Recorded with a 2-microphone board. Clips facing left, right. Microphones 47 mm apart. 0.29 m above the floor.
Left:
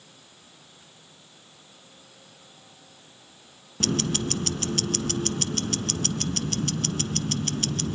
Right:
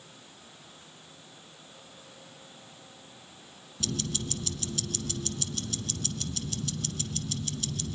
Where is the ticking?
60° left (ahead or behind), 0.6 m.